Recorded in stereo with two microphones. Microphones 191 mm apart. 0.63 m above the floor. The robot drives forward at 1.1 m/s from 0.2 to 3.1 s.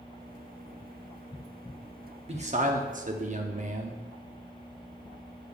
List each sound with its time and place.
2.3 s a man speaking: 35° right (ahead or behind), 0.9 m; by 4.0 s 40° right (ahead or behind), 0.8 m